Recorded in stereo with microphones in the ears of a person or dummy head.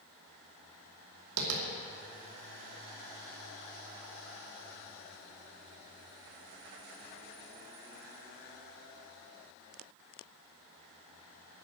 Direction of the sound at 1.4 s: 80° right.